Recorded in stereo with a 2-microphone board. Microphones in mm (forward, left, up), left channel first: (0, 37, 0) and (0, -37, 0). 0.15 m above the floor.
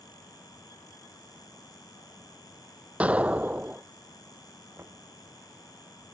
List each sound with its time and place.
3.0 s an explosion: 20° right (ahead or behind)
4.8 s knocking: 35° right (ahead or behind)